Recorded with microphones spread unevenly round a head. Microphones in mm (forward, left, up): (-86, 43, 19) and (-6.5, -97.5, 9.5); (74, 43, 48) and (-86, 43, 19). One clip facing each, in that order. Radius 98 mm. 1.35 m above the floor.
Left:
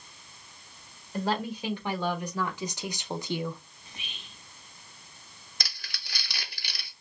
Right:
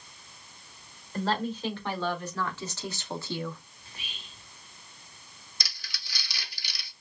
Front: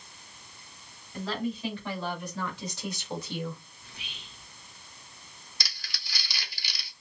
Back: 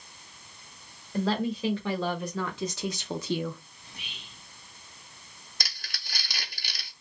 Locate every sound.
1.1 s a woman speaking: 160° right, 1.9 m; by 3.6 s 170° right, 0.6 m
3.8 s whispering: 170° right, 3 m
5.6 s crumpling: 155° left, 0.9 m